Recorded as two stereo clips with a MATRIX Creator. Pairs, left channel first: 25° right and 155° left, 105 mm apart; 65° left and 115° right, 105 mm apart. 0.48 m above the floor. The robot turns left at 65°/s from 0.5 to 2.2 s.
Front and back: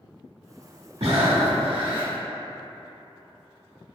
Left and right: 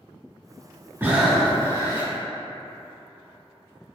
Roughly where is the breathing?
Behind.